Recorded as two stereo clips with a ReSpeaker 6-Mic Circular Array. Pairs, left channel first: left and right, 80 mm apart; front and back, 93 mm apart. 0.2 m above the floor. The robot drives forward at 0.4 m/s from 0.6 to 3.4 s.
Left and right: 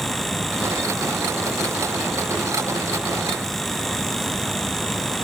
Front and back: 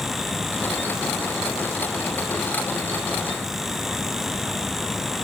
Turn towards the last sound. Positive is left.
No sound to turn to.